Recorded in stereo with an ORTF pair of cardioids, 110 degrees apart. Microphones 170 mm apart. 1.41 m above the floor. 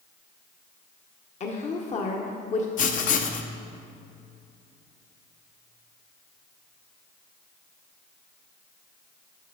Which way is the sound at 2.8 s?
45° left.